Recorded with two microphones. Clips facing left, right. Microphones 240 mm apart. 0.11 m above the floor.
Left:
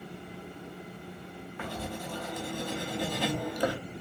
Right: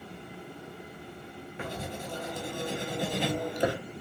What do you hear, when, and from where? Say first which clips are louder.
1.6 s writing: even; 20° right (ahead or behind), 0.6 m